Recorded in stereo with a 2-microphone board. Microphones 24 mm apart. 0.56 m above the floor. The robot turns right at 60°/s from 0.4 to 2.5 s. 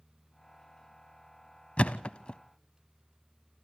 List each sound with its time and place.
1.8 s a thud: 55° left (ahead or behind), 0.6 m; by 2.4 s 35° left (ahead or behind), 0.6 m